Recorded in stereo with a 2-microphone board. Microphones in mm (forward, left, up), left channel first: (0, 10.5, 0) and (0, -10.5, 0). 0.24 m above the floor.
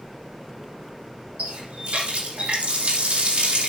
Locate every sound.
1.4 s a running tap: 80° right, 7.5 m